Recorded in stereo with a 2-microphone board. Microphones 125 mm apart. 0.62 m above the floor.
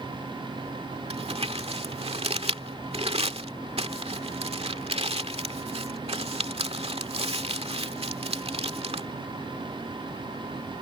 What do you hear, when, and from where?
1.1 s crumpling: 55° right (ahead or behind)